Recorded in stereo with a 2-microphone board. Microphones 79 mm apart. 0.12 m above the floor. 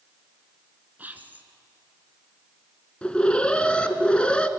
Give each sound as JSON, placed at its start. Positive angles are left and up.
{"t": 1.0, "sound": "whispering", "side_deg": -20, "distance_m": 1.4}
{"t": 3.0, "sound": "an alarm", "side_deg": 15, "distance_m": 0.9}